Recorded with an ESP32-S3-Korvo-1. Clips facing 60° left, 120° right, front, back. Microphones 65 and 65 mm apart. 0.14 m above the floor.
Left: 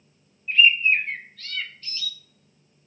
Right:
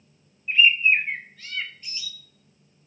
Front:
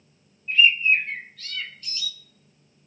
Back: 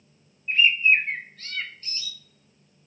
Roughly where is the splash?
I don't hear a splash.